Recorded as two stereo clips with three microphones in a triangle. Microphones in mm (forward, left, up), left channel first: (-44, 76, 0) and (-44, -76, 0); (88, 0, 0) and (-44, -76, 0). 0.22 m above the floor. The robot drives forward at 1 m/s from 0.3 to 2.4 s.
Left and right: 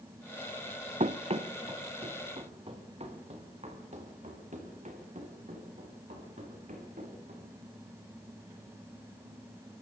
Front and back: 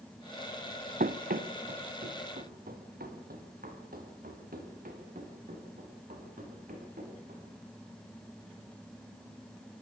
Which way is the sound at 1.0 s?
135° right.